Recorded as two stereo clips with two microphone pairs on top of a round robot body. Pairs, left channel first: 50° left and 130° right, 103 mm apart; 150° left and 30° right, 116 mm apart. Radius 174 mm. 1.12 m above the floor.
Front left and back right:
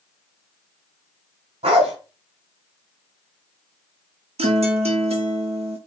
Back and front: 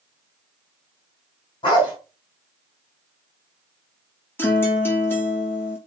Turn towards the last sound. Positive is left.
turn(degrees=-140)